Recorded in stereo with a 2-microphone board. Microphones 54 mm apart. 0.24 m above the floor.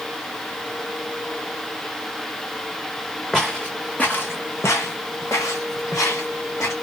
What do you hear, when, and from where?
3.3 s footsteps: 10° left (ahead or behind), 1.2 m; by 6.7 s 65° left (ahead or behind), 1.9 m